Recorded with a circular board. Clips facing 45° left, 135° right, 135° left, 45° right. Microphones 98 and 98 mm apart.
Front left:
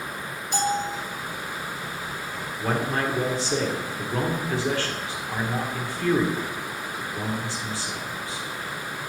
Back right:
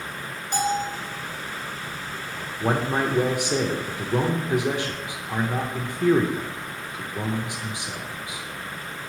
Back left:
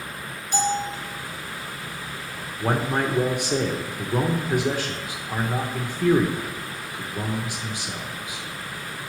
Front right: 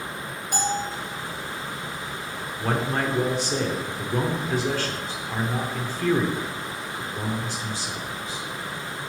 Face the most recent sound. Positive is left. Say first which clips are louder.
# back right 2 dB, back left 2 dB
turn(degrees=-175)